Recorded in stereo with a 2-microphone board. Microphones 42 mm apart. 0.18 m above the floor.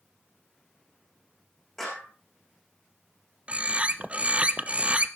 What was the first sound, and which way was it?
A clap, 5° left (ahead or behind).